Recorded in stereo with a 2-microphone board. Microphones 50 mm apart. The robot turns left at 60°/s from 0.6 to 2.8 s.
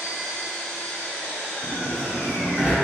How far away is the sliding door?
About 0.8 m.